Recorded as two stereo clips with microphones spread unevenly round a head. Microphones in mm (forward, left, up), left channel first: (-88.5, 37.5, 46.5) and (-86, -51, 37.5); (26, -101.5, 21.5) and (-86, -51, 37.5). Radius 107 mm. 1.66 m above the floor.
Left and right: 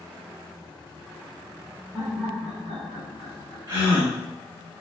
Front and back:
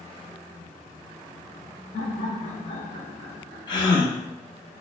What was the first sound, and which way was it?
Laughter, straight ahead.